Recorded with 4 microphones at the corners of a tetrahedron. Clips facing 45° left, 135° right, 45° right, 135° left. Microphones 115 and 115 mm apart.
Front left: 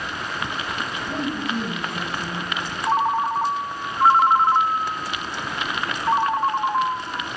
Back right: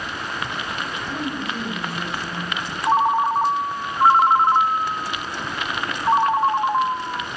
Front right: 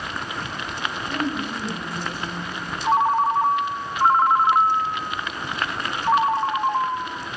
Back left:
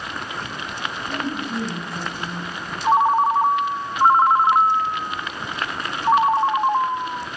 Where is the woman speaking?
85° left, 6.5 m.